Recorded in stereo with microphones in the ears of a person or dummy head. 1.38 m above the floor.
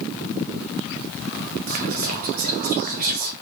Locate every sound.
1.7 s whispering: 50° right (ahead or behind), 0.8 m